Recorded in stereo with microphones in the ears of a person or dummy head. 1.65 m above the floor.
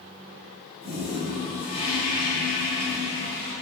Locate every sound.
0.8 s a toilet flushing: 30° right (ahead or behind), 1.1 m